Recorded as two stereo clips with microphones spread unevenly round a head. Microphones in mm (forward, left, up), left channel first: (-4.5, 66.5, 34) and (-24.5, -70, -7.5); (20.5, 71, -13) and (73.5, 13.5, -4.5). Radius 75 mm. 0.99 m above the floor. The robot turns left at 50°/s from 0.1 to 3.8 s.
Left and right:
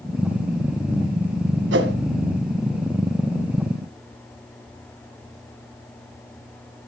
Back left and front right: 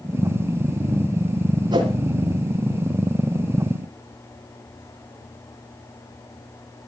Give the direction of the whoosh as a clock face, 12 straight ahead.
3 o'clock.